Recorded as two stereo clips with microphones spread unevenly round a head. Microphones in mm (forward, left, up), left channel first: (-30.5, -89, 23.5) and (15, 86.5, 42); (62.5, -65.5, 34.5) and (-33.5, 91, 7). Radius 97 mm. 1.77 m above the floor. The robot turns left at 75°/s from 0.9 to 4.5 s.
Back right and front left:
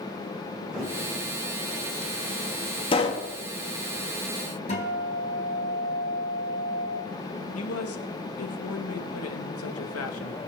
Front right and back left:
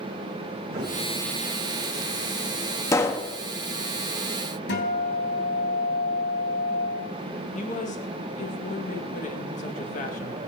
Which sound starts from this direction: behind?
A thud, at 0.7 s.